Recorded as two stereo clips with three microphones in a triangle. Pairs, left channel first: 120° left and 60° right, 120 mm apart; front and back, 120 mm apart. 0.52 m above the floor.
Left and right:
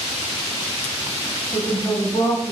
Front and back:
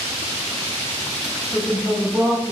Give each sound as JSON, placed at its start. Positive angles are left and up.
{"t": 1.5, "sound": "a woman speaking", "azimuth_deg": 80, "distance_m": 0.9}